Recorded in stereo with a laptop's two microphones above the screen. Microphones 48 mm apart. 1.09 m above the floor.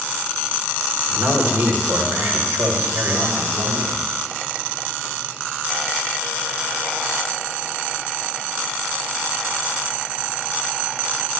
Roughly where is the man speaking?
Right.